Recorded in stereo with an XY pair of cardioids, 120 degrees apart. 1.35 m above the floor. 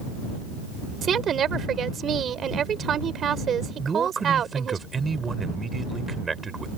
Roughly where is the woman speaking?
Ahead right.